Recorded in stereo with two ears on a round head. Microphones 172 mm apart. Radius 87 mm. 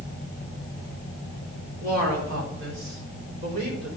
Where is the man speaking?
70° right (ahead or behind), 4 m; by 4.0 s 45° right (ahead or behind), 5 m.